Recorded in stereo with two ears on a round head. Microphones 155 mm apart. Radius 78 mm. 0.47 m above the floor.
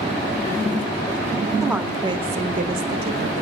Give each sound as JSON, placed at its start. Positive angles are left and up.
{"t": 1.6, "sound": "a woman speaking", "side_deg": 0, "distance_m": 1.5}